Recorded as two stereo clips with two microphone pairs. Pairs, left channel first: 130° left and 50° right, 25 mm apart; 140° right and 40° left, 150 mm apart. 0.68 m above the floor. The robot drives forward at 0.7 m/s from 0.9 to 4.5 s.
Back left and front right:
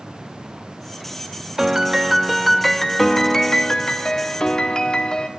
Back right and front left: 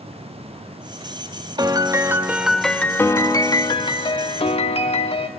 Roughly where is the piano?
Ahead.